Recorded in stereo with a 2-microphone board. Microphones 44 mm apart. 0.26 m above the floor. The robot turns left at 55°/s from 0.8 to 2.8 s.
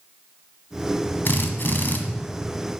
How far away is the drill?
About 0.9 m.